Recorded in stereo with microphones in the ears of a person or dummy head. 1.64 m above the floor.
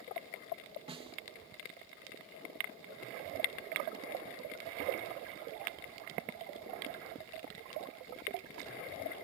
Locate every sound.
0.9 s a snare drum: 25° right (ahead or behind)